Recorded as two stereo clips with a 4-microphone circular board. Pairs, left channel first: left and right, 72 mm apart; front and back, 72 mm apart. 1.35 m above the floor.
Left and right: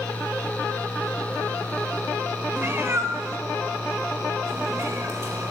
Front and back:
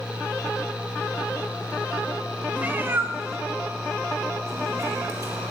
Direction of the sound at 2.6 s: 125° right.